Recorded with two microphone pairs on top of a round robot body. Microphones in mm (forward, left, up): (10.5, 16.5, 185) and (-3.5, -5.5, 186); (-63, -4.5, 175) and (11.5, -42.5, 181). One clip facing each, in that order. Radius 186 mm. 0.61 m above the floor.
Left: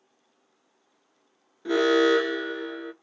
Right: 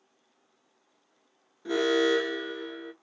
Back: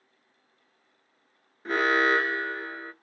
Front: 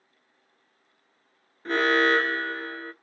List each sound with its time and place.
1.6 s an alarm: 85° left, 1.2 m